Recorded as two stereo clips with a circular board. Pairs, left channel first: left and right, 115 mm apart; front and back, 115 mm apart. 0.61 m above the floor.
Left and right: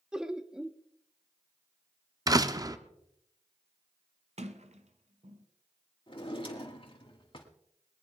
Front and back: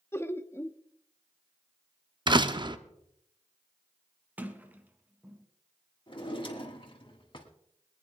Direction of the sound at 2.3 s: 140° right.